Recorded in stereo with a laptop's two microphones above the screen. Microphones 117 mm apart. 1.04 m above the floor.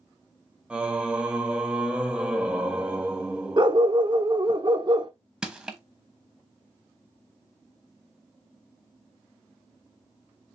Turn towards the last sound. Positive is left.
turn(degrees=-5)  # may be behind; listen again after turning